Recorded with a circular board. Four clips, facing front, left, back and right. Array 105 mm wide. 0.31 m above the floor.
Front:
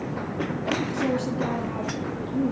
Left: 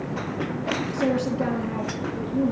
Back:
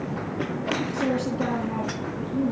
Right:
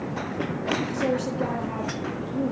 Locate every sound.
0.9 s a woman speaking: 115° left, 4.5 m